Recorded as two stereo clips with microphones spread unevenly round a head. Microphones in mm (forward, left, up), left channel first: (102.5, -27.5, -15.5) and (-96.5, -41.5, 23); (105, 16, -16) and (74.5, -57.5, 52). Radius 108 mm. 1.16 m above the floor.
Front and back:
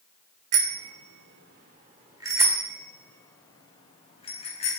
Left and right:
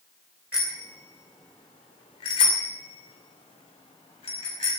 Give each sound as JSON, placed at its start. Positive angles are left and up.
{"t": 0.5, "sound": "a bicycle bell", "azimuth_deg": 165, "distance_m": 3.0}